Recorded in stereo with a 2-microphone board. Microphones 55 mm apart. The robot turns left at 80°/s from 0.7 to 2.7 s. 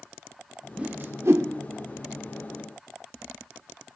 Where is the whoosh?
20° right (ahead or behind), 0.7 m; by 1.5 s 70° right (ahead or behind), 0.7 m.